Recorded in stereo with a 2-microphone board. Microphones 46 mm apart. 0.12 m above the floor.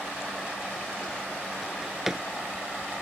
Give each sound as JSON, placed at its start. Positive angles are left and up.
{"t": 1.6, "sound": "a drawer", "side_deg": -5, "distance_m": 0.8}